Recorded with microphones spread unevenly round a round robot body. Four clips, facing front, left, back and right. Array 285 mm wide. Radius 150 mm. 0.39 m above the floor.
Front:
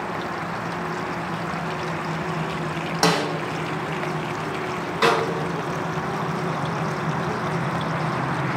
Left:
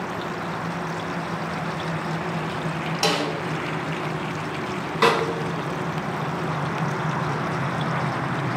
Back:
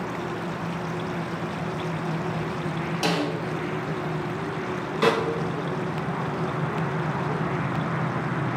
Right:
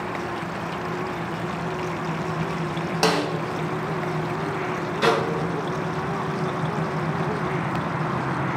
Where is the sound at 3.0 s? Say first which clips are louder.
Right 2 dB, front 5 dB; 25° right, 0.6 m.